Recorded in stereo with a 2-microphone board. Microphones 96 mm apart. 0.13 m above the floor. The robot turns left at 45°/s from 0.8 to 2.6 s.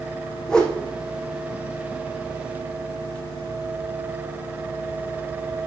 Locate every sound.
0.5 s a whoosh: 5° left (ahead or behind), 1.4 m